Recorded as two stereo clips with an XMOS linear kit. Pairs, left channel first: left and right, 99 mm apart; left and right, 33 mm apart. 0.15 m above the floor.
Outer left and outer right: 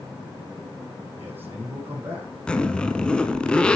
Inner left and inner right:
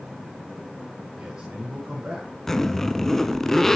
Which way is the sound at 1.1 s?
20° right (ahead or behind).